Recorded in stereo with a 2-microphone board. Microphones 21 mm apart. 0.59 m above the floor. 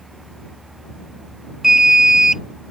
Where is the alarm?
20° right (ahead or behind).